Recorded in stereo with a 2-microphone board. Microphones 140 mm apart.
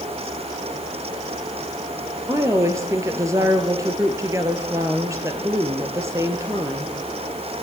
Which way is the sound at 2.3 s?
20° right (ahead or behind).